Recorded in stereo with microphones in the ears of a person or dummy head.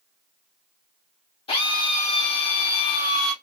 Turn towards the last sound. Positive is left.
turn(degrees=25)  # may be behind; listen again after turning